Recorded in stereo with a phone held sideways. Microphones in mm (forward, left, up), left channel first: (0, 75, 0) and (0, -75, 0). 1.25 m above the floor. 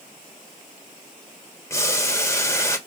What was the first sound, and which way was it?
Boiling, 20° left (ahead or behind).